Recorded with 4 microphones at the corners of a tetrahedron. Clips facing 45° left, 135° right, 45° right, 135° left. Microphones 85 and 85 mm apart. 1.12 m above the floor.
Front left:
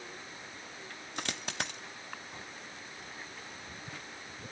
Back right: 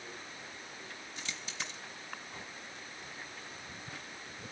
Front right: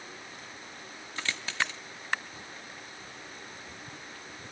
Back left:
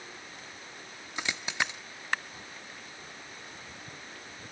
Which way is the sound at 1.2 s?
65° left.